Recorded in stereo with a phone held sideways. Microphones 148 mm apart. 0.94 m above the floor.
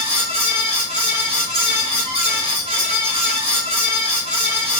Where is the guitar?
No guitar in this recording.